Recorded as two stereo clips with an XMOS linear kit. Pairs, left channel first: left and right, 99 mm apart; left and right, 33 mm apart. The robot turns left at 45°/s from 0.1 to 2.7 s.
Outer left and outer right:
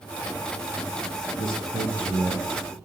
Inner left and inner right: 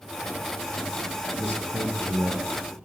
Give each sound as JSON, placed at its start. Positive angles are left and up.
{"t": 1.4, "sound": "a man speaking", "side_deg": 45, "distance_m": 9.5}